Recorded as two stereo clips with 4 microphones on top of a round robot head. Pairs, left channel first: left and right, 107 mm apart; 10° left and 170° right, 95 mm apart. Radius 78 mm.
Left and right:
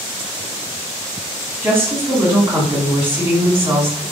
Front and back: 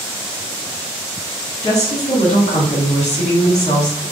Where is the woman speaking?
20° right, 1.8 m.